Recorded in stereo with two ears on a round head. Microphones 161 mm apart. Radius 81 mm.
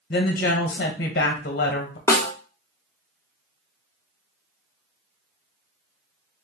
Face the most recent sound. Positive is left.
turn(degrees=15)  # may be behind; listen again after turning